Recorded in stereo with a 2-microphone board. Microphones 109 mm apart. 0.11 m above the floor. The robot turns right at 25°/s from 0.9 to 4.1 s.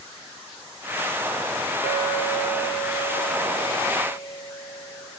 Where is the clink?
120° left, 7.5 m; by 5.1 s straight behind, 7.5 m.